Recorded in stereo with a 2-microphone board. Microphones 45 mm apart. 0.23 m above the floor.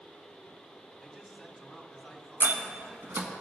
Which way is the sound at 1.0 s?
Centre (ahead or behind).